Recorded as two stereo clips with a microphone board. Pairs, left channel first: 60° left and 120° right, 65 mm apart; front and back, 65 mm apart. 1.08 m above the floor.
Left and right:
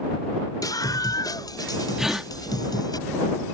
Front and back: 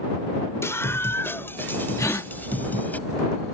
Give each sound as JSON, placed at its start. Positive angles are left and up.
{"t": 0.6, "sound": "a scream", "azimuth_deg": 45}
{"t": 2.0, "sound": "a gasp", "azimuth_deg": -40}